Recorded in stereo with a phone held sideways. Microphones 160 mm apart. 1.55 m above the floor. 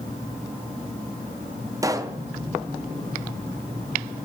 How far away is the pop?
About 0.5 m.